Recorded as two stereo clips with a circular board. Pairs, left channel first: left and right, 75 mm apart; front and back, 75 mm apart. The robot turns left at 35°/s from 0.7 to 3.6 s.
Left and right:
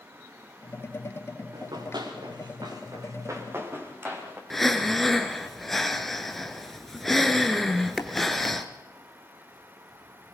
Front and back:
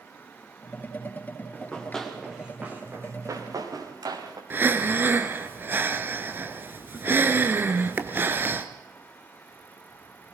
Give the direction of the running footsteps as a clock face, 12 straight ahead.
2 o'clock.